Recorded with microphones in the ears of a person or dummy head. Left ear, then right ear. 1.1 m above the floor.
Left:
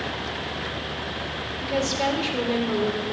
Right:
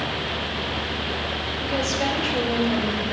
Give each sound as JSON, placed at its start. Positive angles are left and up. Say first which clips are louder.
{"t": 1.6, "sound": "a woman speaking", "louder": "left 1 dB", "side_deg": 55, "distance_m": 4.0}